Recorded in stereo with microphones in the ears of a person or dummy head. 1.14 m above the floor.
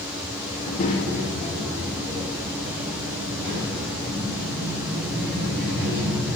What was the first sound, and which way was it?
A child speaking, 45° left (ahead or behind).